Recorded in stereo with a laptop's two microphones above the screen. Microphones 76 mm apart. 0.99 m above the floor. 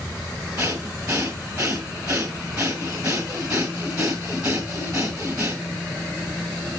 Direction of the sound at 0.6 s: 45° right (ahead or behind).